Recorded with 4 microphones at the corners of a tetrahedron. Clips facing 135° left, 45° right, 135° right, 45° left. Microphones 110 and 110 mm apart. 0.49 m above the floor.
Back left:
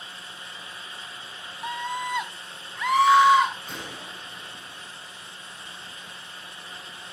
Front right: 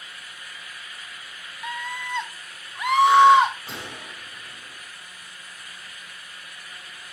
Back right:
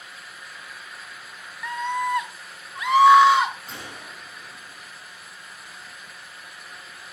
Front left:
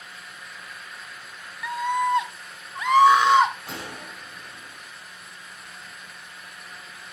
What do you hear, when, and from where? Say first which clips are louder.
1.6 s a scream: back left 3 dB, front left 2 dB; 130° left, 0.9 m; by 3.5 s 10° left, 1.4 m
3.7 s a gunshot: even, front left 3 dB; 35° left, 5 m